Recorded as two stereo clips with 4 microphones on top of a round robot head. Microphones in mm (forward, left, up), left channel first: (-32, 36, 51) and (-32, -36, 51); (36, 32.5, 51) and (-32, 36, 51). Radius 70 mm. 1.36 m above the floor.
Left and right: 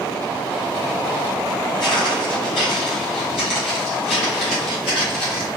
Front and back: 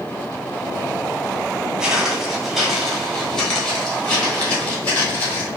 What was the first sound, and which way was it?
Footsteps, 100° left.